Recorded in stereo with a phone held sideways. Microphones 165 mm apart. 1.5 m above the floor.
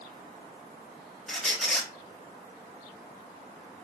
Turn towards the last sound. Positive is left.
turn(degrees=0)  # may be behind; listen again after turning